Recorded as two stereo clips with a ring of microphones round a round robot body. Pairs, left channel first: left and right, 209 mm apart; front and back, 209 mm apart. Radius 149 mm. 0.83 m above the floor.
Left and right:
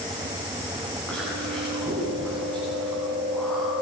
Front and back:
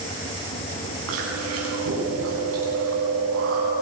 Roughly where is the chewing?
Behind.